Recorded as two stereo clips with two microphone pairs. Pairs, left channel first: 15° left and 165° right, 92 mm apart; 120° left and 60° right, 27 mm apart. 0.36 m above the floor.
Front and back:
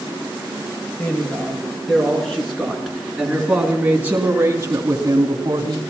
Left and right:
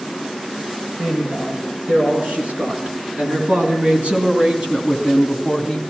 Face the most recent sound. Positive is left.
turn(degrees=-135)